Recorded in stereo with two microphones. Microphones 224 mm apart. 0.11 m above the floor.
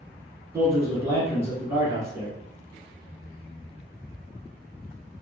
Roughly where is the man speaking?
Centre.